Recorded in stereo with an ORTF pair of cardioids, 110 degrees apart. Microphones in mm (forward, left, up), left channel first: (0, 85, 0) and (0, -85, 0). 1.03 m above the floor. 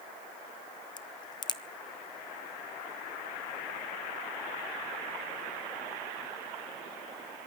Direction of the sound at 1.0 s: 25° left.